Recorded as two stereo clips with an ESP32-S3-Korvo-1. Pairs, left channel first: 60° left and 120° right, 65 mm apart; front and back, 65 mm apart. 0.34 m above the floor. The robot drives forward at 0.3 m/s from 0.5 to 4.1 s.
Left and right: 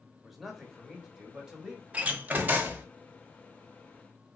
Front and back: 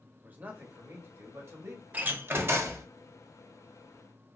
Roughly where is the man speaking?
Behind left.